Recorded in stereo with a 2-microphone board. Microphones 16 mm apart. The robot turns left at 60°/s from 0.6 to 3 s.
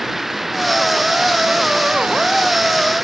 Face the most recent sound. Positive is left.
turn(degrees=-160)